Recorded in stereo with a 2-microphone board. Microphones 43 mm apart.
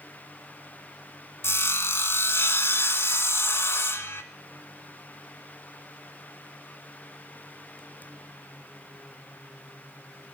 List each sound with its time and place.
1.4 s sawing: 75° left (ahead or behind), 1.1 m